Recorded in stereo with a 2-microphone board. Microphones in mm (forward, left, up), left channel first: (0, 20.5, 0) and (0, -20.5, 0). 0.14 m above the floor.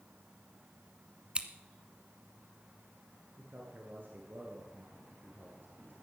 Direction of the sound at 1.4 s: 25° right (ahead or behind).